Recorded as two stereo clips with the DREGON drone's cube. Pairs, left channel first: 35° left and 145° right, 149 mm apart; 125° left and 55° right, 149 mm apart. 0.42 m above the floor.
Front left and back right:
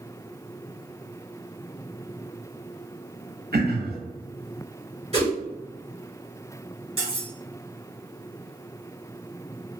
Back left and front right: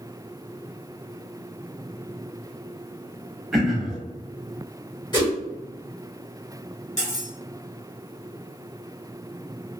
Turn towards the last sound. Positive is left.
turn(degrees=160)